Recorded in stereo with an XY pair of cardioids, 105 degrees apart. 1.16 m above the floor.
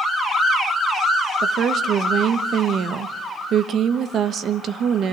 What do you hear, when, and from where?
1.4 s a woman speaking: 65° right, 1.3 m